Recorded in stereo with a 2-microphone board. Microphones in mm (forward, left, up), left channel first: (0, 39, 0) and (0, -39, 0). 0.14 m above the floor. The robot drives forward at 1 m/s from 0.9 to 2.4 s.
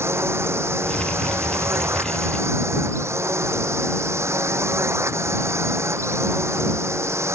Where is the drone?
35° right (ahead or behind).